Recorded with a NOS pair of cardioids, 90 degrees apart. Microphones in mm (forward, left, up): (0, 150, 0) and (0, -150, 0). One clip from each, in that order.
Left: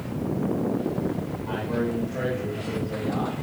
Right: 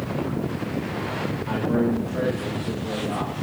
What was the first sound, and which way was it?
A man speaking, 20° right.